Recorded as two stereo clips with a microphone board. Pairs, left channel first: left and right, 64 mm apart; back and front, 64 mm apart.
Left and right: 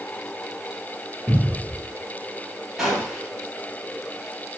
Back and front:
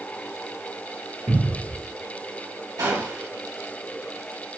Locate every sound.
1.3 s a cupboard door: 30° right, 2.5 m
2.8 s a gunshot: 5° right, 2 m